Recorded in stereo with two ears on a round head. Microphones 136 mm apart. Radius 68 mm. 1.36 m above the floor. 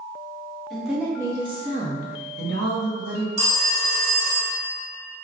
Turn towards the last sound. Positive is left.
turn(degrees=-45)  # may be behind; listen again after turning